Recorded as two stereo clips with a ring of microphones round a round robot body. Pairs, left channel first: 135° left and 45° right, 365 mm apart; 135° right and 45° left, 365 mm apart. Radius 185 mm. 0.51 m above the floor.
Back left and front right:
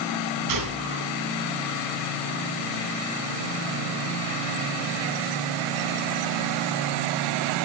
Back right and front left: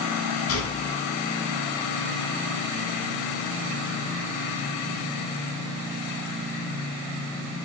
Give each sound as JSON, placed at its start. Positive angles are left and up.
{"t": 0.5, "sound": "a gunshot", "azimuth_deg": -80, "distance_m": 6.5}